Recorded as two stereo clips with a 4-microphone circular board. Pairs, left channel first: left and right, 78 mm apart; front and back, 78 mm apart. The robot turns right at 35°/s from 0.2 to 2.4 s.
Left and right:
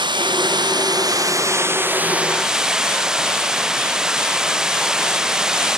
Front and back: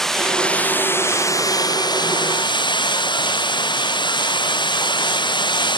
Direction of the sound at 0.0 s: 85° right.